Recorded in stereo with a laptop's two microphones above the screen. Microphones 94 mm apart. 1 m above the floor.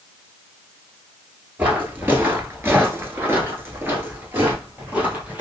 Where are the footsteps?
20° right (ahead or behind), 1.3 m; by 5.4 s 15° right (ahead or behind), 1.7 m.